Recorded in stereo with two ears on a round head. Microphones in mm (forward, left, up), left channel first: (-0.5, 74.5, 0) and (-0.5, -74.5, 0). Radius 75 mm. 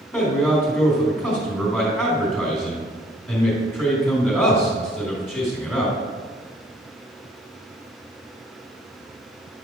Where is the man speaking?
15° left (ahead or behind), 3.5 m.